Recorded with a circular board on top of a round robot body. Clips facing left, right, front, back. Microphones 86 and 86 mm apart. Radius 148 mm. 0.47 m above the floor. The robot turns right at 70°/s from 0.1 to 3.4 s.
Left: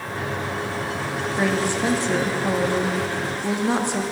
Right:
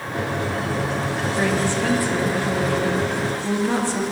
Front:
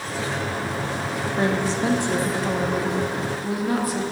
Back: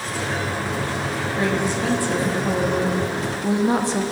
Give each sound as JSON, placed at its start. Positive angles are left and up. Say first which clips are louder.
{"t": 1.4, "sound": "a woman speaking", "louder": "even, even", "azimuth_deg": 5, "distance_m": 1.3}